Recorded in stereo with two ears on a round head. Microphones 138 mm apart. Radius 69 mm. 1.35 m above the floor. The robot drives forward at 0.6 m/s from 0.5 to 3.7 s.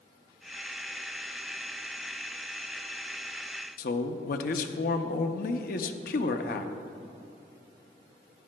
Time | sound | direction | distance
3.8 | a man speaking | 60° left (ahead or behind) | 0.5 m